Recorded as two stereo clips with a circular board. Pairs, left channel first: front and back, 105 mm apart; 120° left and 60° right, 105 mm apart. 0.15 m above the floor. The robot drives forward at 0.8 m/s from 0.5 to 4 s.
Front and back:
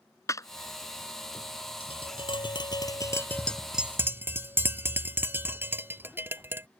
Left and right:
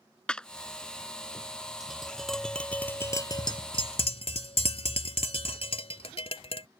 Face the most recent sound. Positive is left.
turn(degrees=110)